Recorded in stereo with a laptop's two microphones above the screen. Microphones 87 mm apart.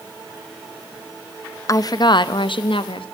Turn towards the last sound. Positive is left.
turn(degrees=80)